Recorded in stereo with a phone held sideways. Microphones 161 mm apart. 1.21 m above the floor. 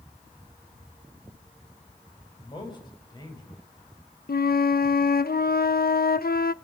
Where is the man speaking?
30° left (ahead or behind), 6.5 m.